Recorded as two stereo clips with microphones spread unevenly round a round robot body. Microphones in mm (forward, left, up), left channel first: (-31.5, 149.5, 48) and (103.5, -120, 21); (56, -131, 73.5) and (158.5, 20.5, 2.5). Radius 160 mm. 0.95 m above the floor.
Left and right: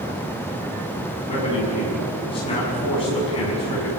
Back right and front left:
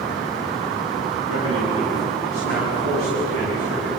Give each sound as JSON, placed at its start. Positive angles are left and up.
{"t": 1.3, "sound": "a man speaking", "azimuth_deg": -170, "distance_m": 7.0}